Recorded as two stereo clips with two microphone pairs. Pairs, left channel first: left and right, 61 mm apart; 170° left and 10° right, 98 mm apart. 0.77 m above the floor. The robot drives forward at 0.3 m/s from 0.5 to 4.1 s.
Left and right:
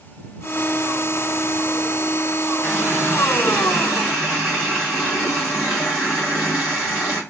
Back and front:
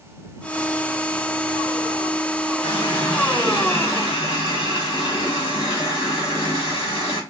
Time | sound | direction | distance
2.6 | a running tap | 155° left | 1.9 m